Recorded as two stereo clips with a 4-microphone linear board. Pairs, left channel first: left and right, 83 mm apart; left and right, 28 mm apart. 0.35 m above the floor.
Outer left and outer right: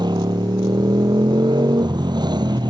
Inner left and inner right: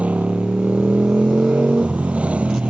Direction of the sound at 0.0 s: 60° right (ahead or behind).